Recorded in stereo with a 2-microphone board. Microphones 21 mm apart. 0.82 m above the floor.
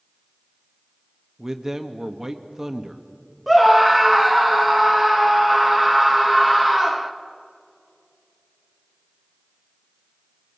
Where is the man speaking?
25° right (ahead or behind), 1.2 m.